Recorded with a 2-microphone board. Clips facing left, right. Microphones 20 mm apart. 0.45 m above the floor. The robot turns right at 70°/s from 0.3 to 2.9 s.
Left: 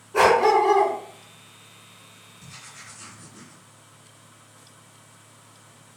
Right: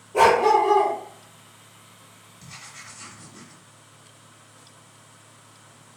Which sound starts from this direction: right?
Writing, at 2.4 s.